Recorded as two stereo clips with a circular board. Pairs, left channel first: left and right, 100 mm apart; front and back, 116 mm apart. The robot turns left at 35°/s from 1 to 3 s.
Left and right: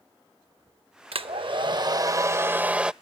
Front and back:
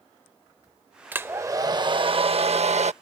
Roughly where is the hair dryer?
Right.